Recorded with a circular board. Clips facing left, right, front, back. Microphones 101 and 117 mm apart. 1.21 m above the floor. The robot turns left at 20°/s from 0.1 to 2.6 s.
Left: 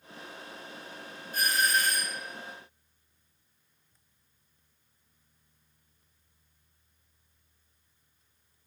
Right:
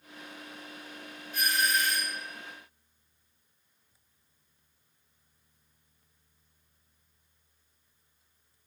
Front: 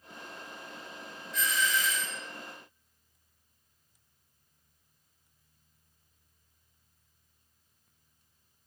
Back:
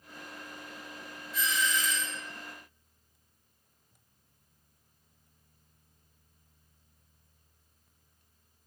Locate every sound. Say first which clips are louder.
1.3 s a doorbell: left 1 dB, front 1 dB; 95° left, 0.6 m; by 2.2 s 80° left, 0.6 m